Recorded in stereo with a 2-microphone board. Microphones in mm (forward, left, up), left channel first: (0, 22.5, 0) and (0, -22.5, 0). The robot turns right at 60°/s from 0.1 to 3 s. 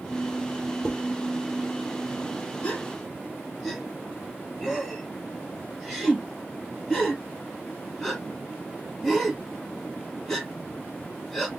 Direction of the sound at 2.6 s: 30° left (ahead or behind).